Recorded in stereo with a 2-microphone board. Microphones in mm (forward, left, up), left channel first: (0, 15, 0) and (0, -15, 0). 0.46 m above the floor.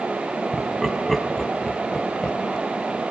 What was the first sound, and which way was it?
Laughter, 5° right (ahead or behind).